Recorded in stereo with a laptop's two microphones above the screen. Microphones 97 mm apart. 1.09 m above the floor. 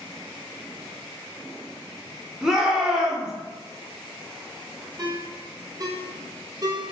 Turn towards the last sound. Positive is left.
turn(degrees=-40)  # may be behind; listen again after turning